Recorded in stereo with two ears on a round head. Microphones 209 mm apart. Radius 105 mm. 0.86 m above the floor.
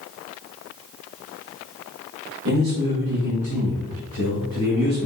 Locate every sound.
2.5 s a man speaking: 55° right (ahead or behind), 1.0 m; by 5.1 s 75° right (ahead or behind), 2.5 m